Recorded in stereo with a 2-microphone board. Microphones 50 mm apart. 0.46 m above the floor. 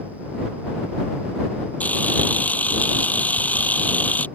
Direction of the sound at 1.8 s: 30° left (ahead or behind).